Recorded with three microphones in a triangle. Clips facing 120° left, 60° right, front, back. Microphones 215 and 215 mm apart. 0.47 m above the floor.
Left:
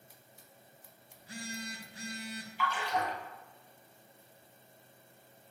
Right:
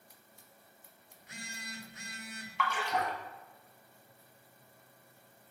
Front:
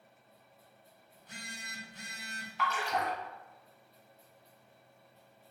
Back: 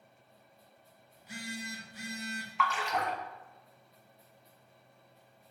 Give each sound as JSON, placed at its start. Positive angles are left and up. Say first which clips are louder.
{"t": 1.1, "sound": "a phone buzzing", "louder": "left 8 dB, back 9 dB", "azimuth_deg": 105, "distance_m": 0.7}
{"t": 2.6, "sound": "a splash", "louder": "even, even", "azimuth_deg": -55, "distance_m": 0.8}